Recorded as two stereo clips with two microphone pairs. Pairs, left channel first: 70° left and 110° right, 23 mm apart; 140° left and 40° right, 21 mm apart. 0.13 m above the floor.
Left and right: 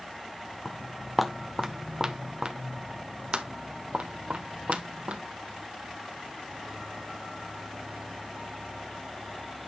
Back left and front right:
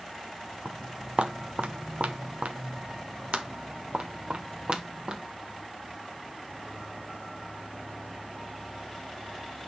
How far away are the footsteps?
About 1.2 m.